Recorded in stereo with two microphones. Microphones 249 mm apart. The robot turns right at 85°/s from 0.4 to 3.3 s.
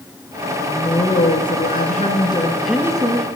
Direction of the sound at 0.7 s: 10° left.